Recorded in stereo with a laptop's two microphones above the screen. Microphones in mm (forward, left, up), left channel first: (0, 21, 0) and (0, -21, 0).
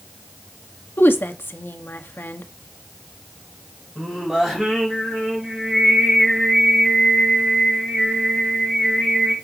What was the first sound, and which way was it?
A woman speaking, 60° left (ahead or behind).